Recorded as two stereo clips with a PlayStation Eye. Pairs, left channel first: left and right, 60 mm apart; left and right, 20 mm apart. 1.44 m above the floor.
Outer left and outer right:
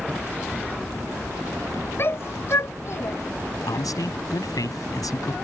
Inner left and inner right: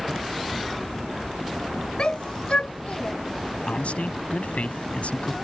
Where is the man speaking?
75° left (ahead or behind).